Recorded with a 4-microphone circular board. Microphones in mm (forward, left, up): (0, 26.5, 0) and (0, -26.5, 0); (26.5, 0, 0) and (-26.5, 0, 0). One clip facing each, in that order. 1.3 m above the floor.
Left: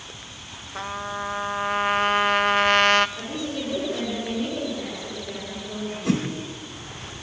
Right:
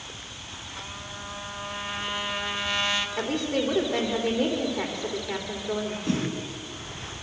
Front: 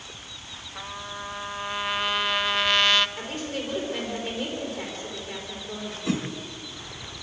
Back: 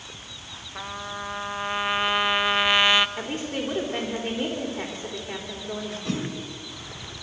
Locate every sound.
0.8 s a trumpet: 105° left, 0.8 m
3.2 s a woman speaking: 120° right, 4 m
6.0 s a whoosh: 80° left, 3 m